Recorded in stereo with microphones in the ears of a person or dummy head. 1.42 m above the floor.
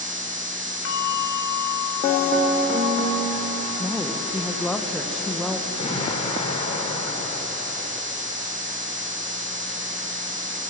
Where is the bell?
80° left, 4 m.